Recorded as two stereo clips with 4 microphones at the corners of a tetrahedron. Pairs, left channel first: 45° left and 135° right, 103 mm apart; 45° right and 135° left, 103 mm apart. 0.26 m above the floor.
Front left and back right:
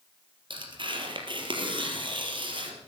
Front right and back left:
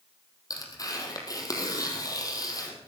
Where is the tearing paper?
100° right, 3 m.